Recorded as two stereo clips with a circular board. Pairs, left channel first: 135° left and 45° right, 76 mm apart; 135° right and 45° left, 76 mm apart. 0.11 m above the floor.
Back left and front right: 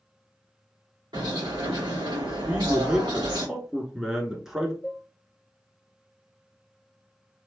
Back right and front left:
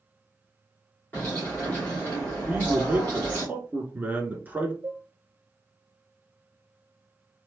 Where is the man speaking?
30° left, 1.1 m.